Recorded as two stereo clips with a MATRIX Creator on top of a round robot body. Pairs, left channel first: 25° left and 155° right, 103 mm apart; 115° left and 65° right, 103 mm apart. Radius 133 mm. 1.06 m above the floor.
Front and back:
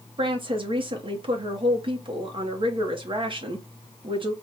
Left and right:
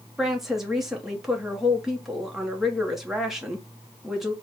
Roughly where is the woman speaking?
Behind right.